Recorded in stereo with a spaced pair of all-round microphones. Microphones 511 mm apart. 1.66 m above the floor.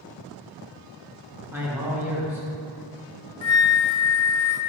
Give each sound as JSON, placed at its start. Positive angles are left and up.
{"t": 1.5, "sound": "a man speaking", "side_deg": -5, "distance_m": 1.8}
{"t": 3.4, "sound": "a flute", "side_deg": 65, "distance_m": 0.5}